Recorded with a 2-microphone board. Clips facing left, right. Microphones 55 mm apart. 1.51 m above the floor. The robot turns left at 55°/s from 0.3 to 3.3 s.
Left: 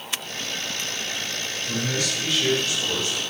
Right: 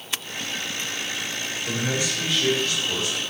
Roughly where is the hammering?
I don't hear hammering.